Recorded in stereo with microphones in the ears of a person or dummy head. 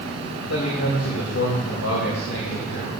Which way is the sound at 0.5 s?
65° left (ahead or behind).